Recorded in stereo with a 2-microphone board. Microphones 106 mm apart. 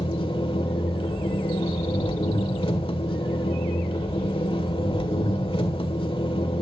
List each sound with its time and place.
0.0 s an engine running: 55° left (ahead or behind), 1.5 m